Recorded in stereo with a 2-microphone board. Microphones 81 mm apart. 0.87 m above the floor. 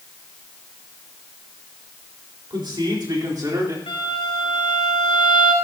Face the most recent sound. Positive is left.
turn(degrees=80)